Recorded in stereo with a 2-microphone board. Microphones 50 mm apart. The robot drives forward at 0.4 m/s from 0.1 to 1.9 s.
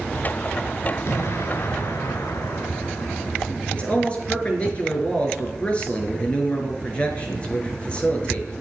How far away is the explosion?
About 2.5 m.